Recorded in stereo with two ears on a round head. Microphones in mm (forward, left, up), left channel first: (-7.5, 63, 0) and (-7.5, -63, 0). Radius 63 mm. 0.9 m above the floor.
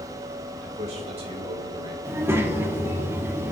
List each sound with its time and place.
0.6 s a man speaking: 55° right (ahead or behind), 3 m; by 1.9 s 35° right (ahead or behind), 2.5 m
2.0 s a child speaking: 20° right (ahead or behind), 1.4 m